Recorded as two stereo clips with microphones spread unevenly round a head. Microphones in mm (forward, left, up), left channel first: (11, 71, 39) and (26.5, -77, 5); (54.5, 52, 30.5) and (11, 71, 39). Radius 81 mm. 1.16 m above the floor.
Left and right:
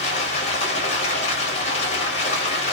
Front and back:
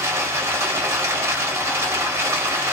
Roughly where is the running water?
Behind left.